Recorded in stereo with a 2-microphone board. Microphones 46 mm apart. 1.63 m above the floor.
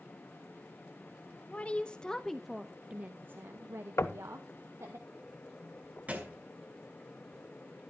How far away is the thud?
About 3 m.